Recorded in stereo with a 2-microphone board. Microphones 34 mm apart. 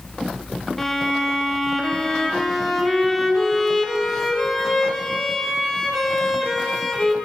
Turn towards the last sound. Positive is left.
turn(degrees=10)  # may be behind; listen again after turning